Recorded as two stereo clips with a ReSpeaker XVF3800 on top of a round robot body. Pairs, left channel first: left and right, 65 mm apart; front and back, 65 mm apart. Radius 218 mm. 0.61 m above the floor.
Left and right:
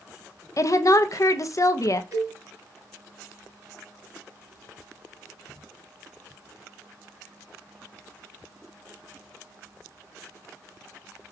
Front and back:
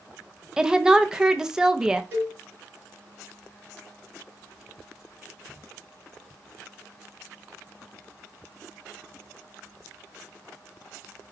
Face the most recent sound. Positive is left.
turn(degrees=-125)